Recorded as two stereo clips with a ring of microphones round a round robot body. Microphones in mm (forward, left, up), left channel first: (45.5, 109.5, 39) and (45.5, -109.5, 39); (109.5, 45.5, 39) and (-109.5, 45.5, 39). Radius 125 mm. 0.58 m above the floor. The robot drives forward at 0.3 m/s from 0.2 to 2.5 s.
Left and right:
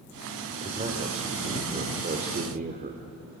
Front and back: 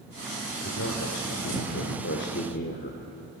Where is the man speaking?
30° right, 1.8 m; by 3.1 s 45° right, 1.4 m.